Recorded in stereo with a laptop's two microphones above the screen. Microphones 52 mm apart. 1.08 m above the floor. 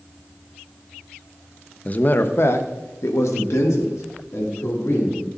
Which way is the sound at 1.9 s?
30° left (ahead or behind).